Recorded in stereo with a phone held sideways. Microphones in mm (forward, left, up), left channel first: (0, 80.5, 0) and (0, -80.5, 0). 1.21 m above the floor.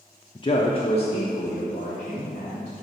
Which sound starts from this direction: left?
A man speaking, at 0.3 s.